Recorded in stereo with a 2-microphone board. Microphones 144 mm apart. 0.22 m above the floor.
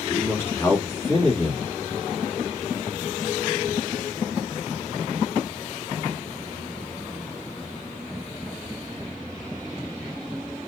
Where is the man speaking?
20° left (ahead or behind), 2.5 m.